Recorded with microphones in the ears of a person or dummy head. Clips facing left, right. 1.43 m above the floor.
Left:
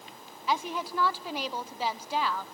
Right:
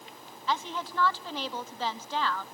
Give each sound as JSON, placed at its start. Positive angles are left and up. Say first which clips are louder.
{"t": 0.5, "sound": "a woman speaking", "louder": "left 2 dB", "side_deg": 15, "distance_m": 0.9}